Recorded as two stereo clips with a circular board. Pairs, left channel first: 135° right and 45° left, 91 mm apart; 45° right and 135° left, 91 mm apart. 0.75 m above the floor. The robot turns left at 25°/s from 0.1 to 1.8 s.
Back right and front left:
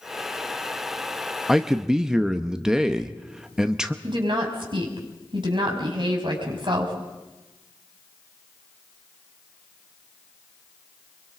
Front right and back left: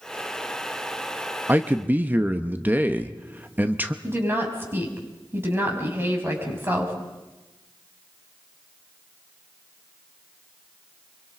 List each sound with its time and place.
1.5 s a man speaking: 125° left, 0.9 m; by 3.9 s 115° left, 0.9 m
4.0 s a woman speaking: 70° left, 5 m